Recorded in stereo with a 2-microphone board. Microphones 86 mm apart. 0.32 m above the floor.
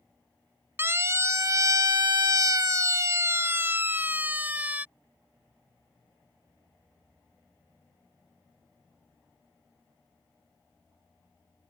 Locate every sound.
0.8 s a siren: 25° right (ahead or behind); by 4.8 s 15° right (ahead or behind)